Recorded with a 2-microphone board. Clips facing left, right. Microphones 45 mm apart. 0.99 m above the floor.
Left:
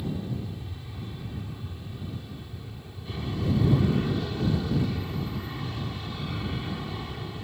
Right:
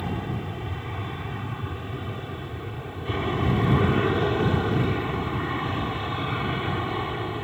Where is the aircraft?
55° right (ahead or behind); by 7.5 s 40° right (ahead or behind).